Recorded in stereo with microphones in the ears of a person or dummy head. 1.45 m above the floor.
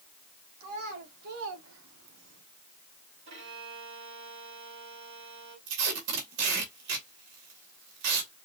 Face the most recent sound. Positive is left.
turn(degrees=-70)  # may be behind; listen again after turning